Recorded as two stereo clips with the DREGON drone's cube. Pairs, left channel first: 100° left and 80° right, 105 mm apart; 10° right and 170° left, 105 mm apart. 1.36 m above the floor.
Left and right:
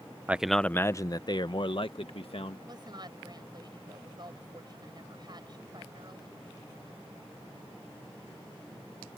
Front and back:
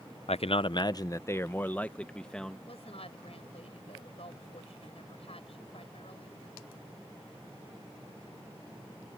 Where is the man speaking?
5° right; by 2.6 s 75° left.